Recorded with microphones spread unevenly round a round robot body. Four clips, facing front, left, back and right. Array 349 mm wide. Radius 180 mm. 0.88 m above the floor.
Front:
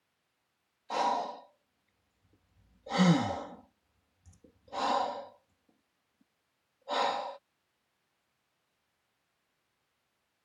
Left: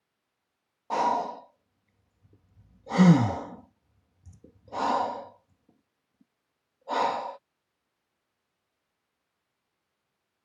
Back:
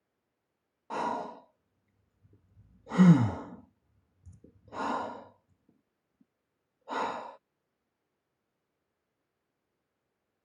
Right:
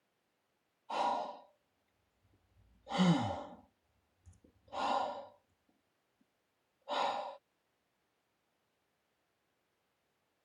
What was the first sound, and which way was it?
Breathing, 120° left.